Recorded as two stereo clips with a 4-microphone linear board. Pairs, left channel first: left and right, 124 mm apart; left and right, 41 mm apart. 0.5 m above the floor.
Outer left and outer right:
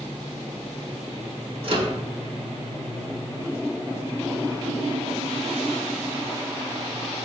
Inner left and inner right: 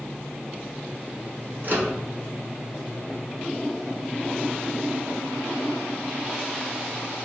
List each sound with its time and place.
1.6 s a microwave: 50° right (ahead or behind), 1.6 m